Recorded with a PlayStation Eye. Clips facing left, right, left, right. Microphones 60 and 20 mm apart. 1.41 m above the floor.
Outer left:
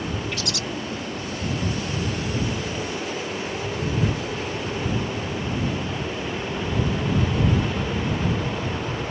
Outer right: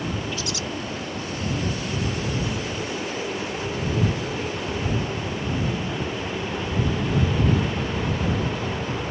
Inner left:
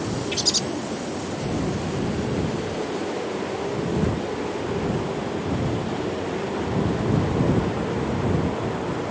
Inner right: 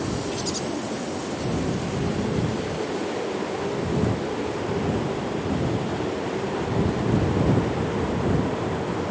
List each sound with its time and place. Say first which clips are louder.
0.3 s a bird: even, inner left 5 dB; 65° left (ahead or behind)